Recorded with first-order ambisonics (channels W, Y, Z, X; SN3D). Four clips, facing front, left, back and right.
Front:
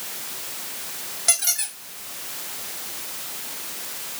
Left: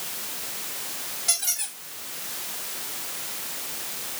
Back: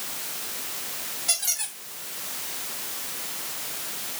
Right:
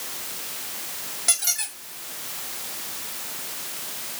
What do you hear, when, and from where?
1.3 s a squeak: 30° right, 2.5 m